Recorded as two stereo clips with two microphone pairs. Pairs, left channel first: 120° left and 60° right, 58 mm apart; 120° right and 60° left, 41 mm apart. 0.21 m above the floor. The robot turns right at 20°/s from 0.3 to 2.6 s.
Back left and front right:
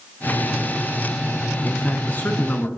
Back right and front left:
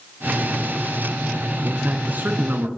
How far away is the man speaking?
About 2 m.